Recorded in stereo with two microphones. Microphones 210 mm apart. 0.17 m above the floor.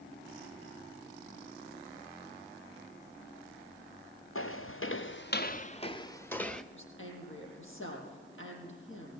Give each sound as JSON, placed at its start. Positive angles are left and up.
{"t": 4.3, "sound": "footsteps", "side_deg": 85, "distance_m": 1.5}
{"t": 6.7, "sound": "a woman speaking", "side_deg": 70, "distance_m": 6.5}